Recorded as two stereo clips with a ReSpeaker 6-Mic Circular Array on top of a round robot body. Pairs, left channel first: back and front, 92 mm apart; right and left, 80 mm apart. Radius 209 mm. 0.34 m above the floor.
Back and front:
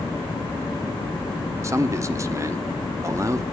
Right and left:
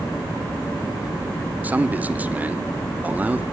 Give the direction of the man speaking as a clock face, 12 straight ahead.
11 o'clock.